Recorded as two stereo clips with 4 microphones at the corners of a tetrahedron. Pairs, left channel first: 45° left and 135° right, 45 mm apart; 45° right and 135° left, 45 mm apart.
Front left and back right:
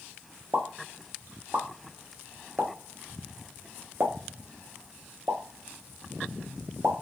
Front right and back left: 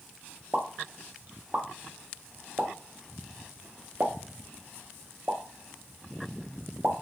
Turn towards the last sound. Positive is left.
turn(degrees=-170)